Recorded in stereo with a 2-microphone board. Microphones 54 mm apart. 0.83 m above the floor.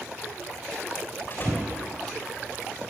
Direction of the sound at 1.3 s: 40° left (ahead or behind).